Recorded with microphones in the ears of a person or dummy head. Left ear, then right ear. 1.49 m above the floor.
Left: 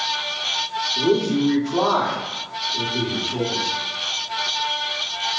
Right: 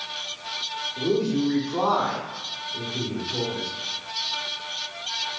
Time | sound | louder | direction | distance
1.0 | a man speaking | left 4 dB | 50° left (ahead or behind) | 1.6 m